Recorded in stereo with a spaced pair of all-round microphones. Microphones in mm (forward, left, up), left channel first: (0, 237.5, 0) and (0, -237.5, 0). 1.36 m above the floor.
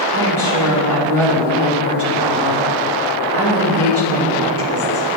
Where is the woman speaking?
30° right (ahead or behind), 2.5 m.